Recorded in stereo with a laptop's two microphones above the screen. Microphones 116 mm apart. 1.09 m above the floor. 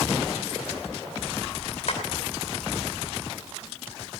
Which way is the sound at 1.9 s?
65° left (ahead or behind).